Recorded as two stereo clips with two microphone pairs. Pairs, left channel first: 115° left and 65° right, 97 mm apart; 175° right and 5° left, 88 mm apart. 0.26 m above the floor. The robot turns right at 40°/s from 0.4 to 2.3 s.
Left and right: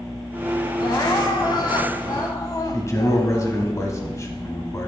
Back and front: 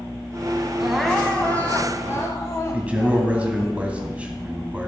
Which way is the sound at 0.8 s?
85° left.